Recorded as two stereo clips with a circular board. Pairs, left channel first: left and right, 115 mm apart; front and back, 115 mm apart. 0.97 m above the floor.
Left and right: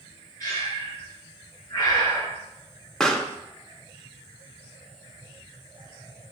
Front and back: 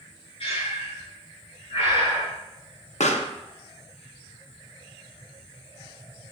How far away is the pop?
About 0.8 m.